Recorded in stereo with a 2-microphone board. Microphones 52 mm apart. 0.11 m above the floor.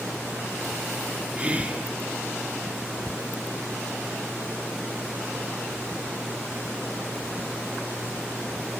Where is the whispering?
25° right (ahead or behind), 1.2 m.